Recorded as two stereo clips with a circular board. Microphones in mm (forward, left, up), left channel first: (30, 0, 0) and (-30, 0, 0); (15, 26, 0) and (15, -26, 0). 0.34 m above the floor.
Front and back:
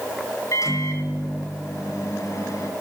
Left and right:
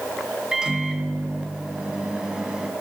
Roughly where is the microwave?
Ahead.